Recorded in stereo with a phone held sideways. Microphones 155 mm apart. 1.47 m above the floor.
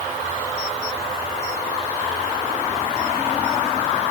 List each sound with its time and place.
Only background noise.